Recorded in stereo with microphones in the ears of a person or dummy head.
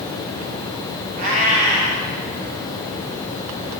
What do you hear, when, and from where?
1.2 s a cat meowing: 30° right (ahead or behind), 1.0 m